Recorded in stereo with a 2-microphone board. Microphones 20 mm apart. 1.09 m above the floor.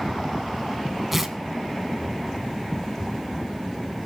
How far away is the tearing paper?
About 2 m.